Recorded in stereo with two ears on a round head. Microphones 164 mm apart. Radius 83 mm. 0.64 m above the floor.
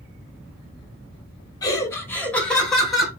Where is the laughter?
20° left (ahead or behind), 1.1 m; by 3.1 s centre (ahead or behind), 1.8 m.